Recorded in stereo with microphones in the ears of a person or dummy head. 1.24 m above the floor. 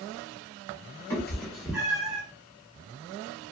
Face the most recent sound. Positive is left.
turn(degrees=-25)  # may be behind; listen again after turning